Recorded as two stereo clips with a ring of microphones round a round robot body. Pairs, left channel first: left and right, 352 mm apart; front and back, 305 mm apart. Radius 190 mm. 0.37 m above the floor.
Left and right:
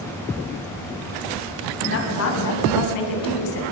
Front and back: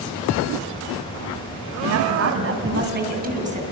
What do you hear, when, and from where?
1.8 s a woman speaking: 150° left, 3 m; by 3.6 s 110° left, 4 m